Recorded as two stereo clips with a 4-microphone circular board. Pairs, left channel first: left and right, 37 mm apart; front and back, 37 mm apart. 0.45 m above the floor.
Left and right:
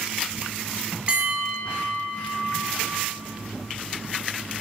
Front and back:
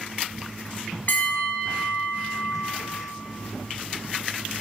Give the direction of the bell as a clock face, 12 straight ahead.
1 o'clock.